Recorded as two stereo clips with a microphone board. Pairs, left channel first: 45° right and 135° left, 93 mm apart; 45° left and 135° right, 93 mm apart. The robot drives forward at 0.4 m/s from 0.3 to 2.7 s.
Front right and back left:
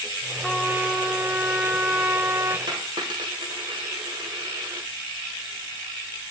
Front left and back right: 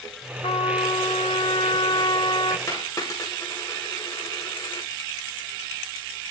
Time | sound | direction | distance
0.4 | a trumpet | 50° left | 2 m
2.7 | a dropped coin | 100° left | 9.5 m